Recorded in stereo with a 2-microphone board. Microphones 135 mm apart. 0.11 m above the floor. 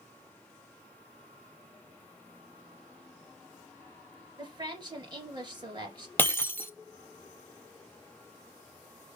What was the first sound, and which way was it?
A woman speaking, 35° right (ahead or behind).